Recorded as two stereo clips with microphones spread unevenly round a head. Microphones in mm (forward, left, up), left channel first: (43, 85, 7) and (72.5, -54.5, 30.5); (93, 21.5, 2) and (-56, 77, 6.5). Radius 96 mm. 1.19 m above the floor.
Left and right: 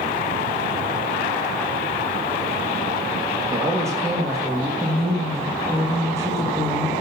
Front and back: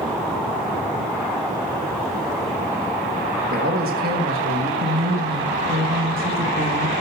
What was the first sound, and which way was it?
A man speaking, 155° right.